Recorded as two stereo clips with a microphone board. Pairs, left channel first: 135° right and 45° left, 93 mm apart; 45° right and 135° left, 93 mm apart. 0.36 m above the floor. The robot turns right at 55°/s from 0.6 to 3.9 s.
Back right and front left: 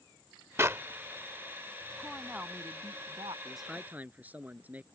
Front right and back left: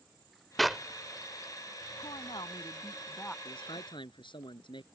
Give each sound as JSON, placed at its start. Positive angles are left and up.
{"t": 0.6, "sound": "a clap", "azimuth_deg": 45}
{"t": 2.0, "sound": "a woman speaking", "azimuth_deg": -50}
{"t": 3.5, "sound": "a man speaking", "azimuth_deg": -50}